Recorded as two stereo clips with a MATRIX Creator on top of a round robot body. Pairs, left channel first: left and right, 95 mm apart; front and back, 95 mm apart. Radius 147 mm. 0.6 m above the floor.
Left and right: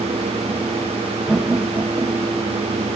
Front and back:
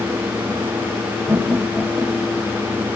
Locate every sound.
1.3 s laughter: 170° right, 1.2 m; by 2.7 s 75° right, 1.6 m